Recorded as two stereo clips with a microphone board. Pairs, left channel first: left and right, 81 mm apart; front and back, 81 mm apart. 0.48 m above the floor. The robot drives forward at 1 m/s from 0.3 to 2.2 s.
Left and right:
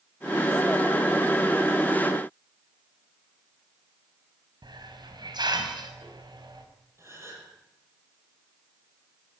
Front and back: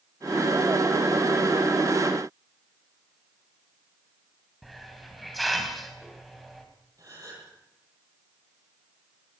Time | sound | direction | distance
4.6 | a hiss | 90° right | 3.5 m
7.0 | a gasp | 145° right | 9.5 m